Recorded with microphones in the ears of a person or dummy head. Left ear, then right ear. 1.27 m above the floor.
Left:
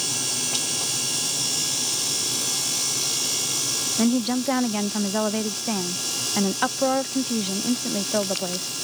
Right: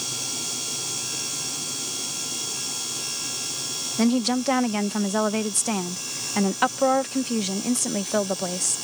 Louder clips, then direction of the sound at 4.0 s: Even; 80° right.